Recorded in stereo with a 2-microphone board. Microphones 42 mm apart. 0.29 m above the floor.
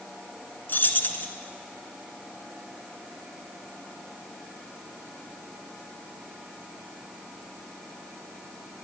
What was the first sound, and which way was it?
Keys jangling, 50° left (ahead or behind).